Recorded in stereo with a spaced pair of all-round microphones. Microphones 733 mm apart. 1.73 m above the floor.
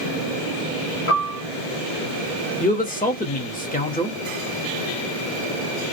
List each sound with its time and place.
1.1 s a piano: 40° left (ahead or behind), 1.5 m
2.6 s a man speaking: 15° left (ahead or behind), 0.6 m